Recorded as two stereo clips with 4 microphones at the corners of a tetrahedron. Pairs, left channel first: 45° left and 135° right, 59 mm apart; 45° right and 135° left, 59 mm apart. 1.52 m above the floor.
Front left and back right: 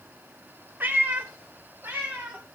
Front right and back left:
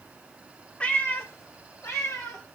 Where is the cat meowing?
105° right, 0.9 m; by 2.5 s 75° right, 2.5 m.